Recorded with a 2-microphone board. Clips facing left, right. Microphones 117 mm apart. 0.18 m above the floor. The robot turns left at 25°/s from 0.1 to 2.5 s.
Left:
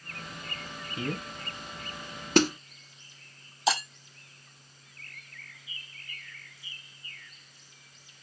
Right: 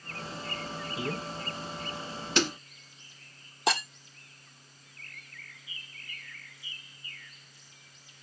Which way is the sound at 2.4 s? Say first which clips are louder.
Left 6 dB; 45° left (ahead or behind).